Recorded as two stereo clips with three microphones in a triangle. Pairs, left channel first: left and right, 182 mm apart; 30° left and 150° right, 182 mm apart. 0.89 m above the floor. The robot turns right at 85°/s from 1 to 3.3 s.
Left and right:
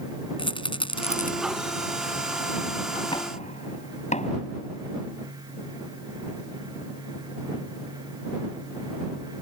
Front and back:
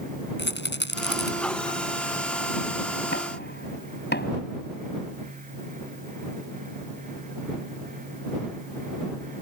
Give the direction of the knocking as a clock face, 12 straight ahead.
11 o'clock.